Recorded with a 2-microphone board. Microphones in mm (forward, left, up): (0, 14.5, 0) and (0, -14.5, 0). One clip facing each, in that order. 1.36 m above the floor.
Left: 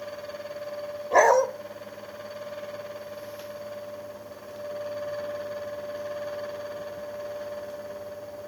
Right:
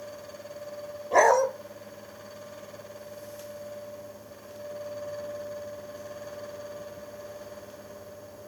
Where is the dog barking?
10° left (ahead or behind), 1.4 m.